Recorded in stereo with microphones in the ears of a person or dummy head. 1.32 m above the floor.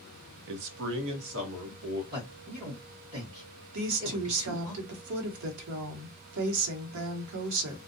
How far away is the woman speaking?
About 0.9 m.